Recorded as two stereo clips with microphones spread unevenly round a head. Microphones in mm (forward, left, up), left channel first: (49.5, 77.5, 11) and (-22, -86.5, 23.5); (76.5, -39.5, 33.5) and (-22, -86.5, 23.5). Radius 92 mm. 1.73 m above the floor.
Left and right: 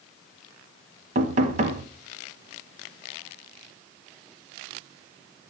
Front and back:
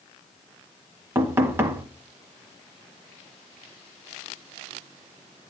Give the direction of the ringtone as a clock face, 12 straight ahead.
I don't hear a ringtone.